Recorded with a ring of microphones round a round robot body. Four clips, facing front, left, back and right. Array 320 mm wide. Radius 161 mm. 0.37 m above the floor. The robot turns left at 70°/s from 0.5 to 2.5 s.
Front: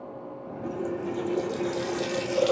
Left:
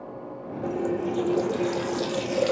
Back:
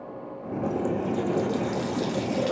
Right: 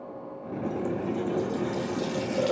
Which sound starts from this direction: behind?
A running tap, at 0.6 s.